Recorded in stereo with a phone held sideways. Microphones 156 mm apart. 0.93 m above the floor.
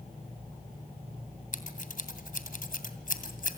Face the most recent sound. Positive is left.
turn(degrees=60)  # may be behind; listen again after turning